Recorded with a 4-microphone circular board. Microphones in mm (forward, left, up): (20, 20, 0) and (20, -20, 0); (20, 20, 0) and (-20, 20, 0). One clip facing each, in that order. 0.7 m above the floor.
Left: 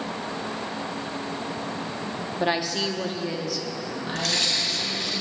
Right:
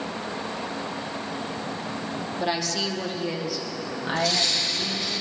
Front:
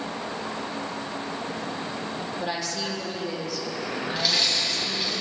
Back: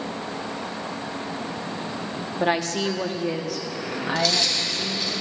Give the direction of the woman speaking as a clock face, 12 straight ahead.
7 o'clock.